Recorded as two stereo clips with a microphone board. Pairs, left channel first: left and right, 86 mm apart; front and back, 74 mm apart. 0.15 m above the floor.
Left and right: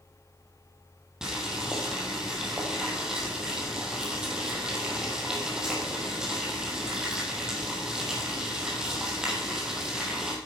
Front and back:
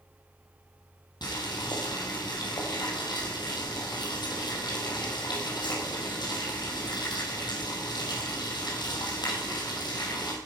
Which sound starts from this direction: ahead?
Boiling, at 1.2 s.